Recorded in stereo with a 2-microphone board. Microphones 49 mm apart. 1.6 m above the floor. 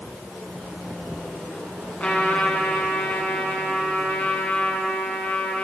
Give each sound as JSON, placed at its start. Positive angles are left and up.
{"t": 2.0, "sound": "a trumpet", "side_deg": 30, "distance_m": 8.0}